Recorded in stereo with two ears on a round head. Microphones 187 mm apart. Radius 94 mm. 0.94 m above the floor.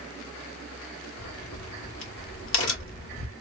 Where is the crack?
70° left (ahead or behind), 1.5 m.